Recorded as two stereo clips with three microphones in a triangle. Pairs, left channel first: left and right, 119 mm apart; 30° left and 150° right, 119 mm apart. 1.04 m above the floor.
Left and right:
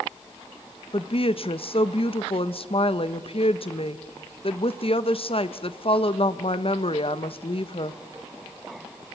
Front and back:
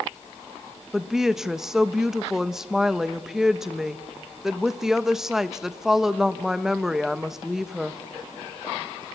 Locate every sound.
0.9 s a woman speaking: 125° left, 1.0 m